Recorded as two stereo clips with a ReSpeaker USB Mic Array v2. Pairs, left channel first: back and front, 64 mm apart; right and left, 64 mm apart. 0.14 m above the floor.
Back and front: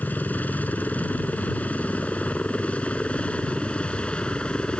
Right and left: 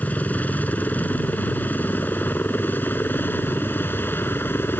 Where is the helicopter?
135° right; by 4.8 s 115° right.